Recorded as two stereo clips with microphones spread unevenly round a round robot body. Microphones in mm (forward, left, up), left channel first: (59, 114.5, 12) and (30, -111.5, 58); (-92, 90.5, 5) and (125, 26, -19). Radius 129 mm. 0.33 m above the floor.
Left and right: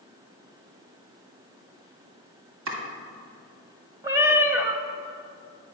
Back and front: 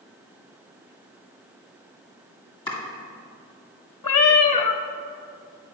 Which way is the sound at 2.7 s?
120° right.